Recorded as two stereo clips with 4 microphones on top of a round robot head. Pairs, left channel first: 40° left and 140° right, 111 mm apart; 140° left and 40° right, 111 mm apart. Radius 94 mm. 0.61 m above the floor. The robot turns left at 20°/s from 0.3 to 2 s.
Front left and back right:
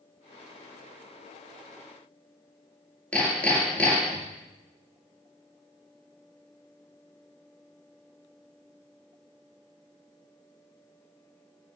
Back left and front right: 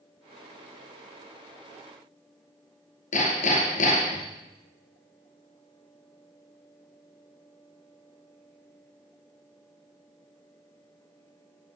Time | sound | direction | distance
3.1 | hammering | 120° left | 4.5 m